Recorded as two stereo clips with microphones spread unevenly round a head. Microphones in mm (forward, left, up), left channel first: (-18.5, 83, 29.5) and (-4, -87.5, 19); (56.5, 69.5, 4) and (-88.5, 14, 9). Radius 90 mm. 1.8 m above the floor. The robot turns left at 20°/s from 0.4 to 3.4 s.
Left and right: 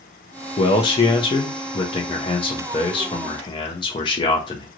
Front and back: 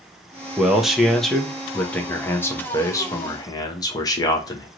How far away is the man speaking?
About 0.8 m.